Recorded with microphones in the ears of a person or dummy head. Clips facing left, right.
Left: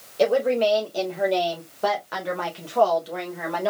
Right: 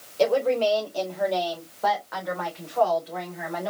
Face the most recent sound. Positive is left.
turn(degrees=65)  # may be behind; listen again after turning